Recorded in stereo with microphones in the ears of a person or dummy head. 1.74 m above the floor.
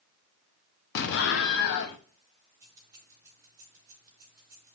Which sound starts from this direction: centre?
Keys jangling, at 2.6 s.